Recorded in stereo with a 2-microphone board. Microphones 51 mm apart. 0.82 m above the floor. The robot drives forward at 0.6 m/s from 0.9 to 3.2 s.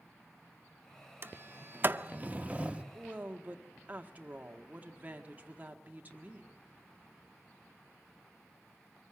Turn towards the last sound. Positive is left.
turn(degrees=-30)  # may be behind; listen again after turning